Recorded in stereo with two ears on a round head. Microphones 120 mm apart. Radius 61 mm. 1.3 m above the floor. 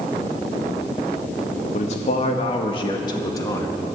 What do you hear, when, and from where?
1.7 s a man speaking: 60° left (ahead or behind), 2 m; by 4.0 s 20° left (ahead or behind), 2 m